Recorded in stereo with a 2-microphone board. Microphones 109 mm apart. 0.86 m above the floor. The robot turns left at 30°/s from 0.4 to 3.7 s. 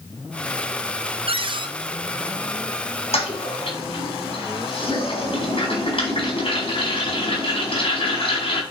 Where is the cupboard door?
60° right (ahead or behind), 0.5 m; by 1.7 s 50° right (ahead or behind), 0.5 m.